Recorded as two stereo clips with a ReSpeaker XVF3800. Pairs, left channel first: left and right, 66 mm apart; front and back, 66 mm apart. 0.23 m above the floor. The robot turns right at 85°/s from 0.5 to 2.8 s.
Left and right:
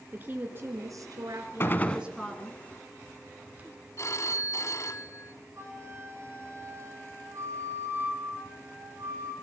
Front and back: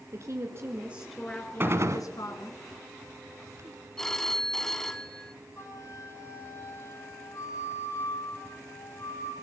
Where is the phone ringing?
80° left, 1.3 m.